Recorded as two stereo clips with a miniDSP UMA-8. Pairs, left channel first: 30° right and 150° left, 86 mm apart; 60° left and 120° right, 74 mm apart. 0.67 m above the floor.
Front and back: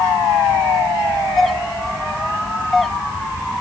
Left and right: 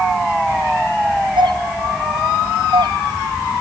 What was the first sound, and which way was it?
A doorbell, 115° right.